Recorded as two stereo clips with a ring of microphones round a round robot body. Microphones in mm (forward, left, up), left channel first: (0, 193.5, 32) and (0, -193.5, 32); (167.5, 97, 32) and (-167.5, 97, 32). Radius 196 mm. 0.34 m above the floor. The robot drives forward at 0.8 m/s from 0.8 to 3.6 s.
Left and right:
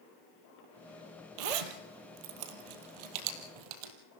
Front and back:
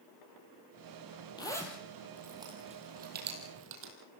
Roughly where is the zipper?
Right.